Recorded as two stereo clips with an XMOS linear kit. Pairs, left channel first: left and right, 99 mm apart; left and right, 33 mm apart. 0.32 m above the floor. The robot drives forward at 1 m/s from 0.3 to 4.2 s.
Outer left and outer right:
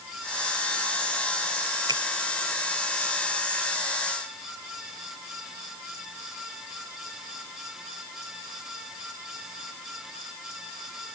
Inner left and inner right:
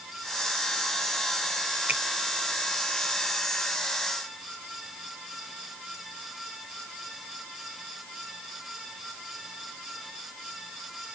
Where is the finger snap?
50° right (ahead or behind).